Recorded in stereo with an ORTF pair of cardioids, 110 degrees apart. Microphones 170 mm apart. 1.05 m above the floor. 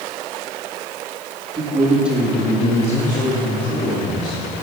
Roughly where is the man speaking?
Ahead right.